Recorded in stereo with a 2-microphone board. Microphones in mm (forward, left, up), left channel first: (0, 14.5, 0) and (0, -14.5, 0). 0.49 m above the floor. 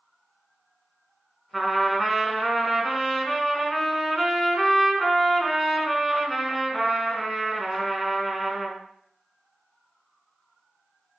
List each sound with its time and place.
1.5 s a trumpet: 5° right (ahead or behind), 1.4 m